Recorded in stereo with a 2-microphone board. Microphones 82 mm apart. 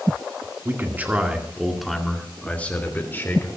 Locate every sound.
0.7 s a man speaking: 30° right (ahead or behind), 2.5 m; by 3.5 s 30° left (ahead or behind), 3.5 m